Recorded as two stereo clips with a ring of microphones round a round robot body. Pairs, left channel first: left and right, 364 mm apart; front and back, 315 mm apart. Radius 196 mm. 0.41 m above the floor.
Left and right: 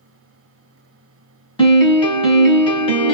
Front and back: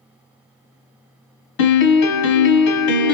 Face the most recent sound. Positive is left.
turn(degrees=15)